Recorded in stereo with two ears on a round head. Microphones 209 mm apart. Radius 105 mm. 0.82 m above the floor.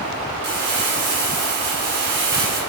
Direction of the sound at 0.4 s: 50° right (ahead or behind).